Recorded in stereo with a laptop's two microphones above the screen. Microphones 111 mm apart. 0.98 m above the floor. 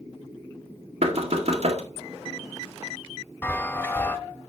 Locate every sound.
1.0 s knocking: 60° right (ahead or behind), 1.7 m
3.4 s a chime: 20° left (ahead or behind), 1.0 m